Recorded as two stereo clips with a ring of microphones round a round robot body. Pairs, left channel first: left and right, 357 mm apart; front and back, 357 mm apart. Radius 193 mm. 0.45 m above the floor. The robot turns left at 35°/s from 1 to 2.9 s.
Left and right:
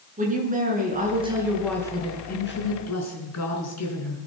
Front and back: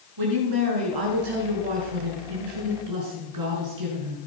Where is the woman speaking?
160° right, 6.5 m; by 4.2 s 135° left, 6.5 m.